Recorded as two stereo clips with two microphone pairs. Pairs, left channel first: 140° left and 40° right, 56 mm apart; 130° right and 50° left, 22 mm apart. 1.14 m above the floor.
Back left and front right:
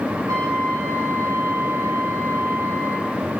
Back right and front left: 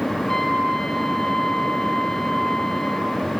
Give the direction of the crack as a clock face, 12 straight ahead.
I don't hear a crack.